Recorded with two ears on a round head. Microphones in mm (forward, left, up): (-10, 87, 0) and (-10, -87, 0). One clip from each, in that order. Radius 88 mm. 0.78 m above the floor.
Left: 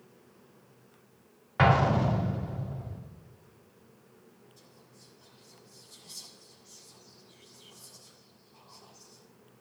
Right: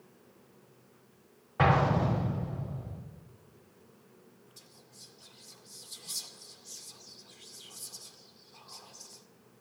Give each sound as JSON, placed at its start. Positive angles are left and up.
{"t": 1.6, "sound": "an explosion", "side_deg": 45, "distance_m": 2.0}
{"t": 4.6, "sound": "whispering", "side_deg": -35, "distance_m": 1.8}